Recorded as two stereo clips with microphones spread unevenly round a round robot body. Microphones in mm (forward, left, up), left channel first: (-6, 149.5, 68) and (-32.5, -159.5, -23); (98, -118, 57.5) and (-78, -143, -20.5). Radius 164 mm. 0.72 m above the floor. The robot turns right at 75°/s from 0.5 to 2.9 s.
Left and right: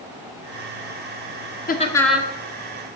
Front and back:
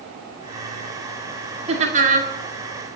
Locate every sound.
1.7 s laughter: 150° left, 2 m; by 2.3 s 160° right, 2 m